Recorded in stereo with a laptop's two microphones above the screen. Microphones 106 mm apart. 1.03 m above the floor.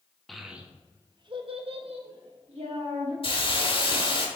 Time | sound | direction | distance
0.3 | a child speaking | centre (ahead or behind) | 1.1 m
3.2 | a hiss | 55° left (ahead or behind) | 1.1 m